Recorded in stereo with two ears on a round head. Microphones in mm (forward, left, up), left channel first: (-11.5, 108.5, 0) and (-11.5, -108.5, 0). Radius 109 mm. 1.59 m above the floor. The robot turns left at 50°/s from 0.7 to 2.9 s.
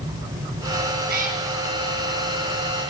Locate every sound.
1.1 s a cat meowing: 45° right (ahead or behind), 5 m; by 1.4 s 30° right (ahead or behind), 5 m